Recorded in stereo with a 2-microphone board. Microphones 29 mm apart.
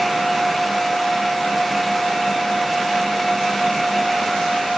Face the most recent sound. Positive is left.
No sound to turn to.